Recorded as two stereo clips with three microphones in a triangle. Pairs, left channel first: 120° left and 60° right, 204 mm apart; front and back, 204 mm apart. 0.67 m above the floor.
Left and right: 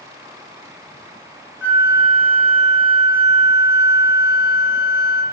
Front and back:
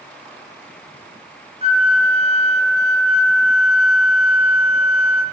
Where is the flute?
120° left, 2 m.